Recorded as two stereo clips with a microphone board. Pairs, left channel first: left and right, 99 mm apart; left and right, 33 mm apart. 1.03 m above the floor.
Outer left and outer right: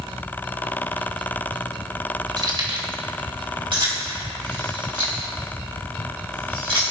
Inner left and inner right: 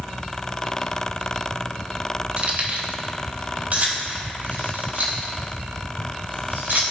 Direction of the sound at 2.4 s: 40° right (ahead or behind).